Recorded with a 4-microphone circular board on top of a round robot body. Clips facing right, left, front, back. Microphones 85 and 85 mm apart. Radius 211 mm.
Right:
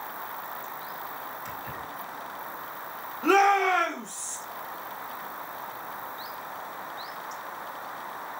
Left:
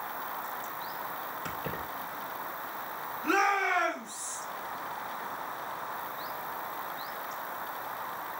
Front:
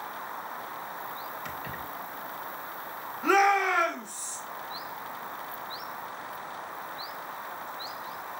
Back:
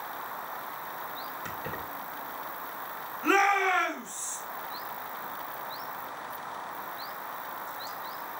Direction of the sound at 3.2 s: 80° right.